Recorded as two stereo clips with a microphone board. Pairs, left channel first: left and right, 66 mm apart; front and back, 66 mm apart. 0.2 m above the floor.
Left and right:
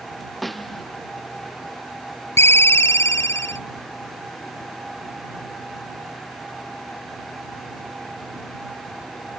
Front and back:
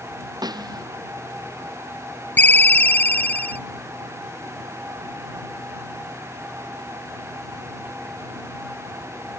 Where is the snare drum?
Straight behind.